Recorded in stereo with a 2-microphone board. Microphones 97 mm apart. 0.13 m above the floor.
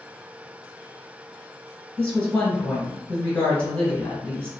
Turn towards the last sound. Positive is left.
turn(degrees=15)  # may be behind; listen again after turning